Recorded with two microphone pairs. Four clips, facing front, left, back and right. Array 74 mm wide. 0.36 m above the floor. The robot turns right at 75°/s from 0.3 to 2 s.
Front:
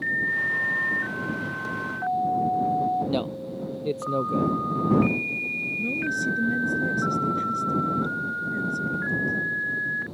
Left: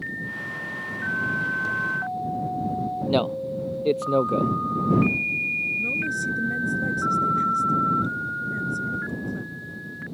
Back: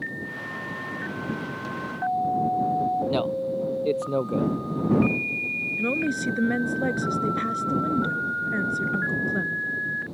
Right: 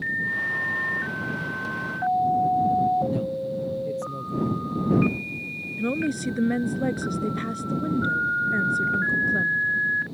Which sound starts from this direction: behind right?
A woman speaking, at 5.8 s.